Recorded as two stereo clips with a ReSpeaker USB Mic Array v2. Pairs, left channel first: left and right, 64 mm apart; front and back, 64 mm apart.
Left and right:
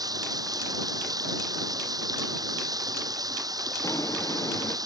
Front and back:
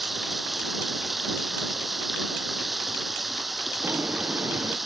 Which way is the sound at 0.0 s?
90° right.